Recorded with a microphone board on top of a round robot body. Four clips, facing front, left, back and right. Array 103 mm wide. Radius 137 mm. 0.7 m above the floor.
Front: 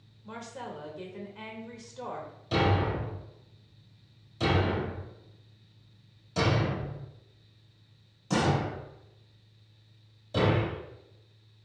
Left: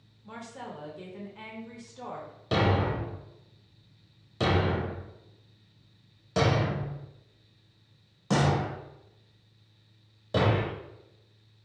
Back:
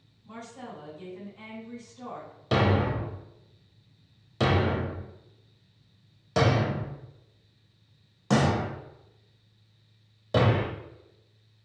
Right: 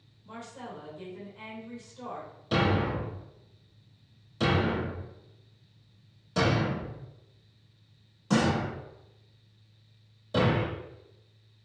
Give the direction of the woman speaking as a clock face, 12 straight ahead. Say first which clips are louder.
Left 1 dB, front 2 dB; 11 o'clock.